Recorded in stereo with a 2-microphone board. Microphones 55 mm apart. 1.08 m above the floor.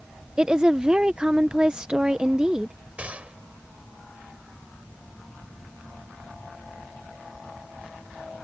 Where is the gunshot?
25° right (ahead or behind).